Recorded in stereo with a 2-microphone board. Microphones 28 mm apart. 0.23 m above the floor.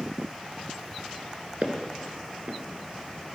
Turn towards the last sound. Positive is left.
turn(degrees=-55)  # may be behind; listen again after turning